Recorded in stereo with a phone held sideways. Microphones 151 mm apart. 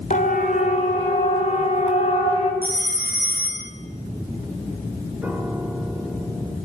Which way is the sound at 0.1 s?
55° left (ahead or behind).